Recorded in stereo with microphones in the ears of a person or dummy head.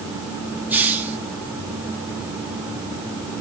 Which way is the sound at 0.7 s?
Centre (ahead or behind).